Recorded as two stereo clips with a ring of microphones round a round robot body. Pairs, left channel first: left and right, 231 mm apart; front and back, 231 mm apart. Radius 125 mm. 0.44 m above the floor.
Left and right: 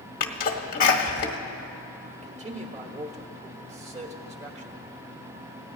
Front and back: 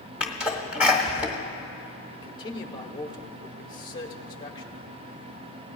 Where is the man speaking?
55° right, 1.4 m.